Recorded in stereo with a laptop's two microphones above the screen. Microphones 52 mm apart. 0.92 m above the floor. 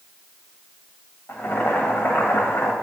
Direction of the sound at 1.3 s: 50° left (ahead or behind).